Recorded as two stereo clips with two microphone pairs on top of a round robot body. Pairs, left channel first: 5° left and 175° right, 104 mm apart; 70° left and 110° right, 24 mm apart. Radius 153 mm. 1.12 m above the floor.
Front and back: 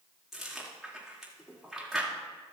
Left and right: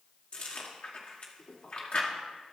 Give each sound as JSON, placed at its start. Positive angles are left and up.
{"t": 0.3, "sound": "chewing", "azimuth_deg": 95, "distance_m": 2.5}